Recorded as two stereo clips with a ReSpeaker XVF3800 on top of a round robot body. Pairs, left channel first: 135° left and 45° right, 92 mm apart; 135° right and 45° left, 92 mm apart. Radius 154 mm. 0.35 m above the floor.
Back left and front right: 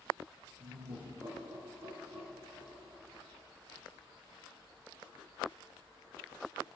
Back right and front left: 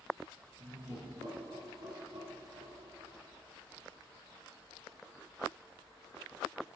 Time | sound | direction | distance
0.6 | laughter | 5° left | 5 m